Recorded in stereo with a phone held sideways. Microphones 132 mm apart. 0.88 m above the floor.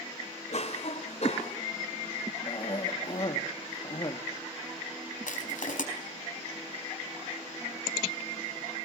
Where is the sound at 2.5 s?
40° left (ahead or behind), 1.6 m.